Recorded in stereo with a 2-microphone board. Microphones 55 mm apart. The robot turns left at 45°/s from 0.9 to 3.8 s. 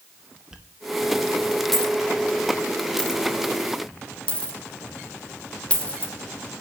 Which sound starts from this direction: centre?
A dropped coin, at 0.5 s.